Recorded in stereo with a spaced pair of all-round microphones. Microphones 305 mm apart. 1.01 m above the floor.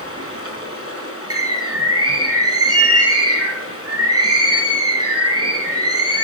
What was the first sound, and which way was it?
Running water, 50° left (ahead or behind).